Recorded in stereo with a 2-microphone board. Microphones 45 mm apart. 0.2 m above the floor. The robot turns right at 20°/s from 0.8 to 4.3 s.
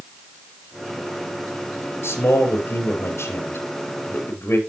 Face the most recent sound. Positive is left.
turn(degrees=125)